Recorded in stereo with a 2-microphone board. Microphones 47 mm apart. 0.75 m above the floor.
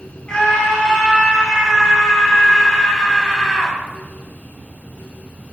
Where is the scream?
15° left (ahead or behind), 5.5 m; by 3.8 s centre (ahead or behind), 4.5 m.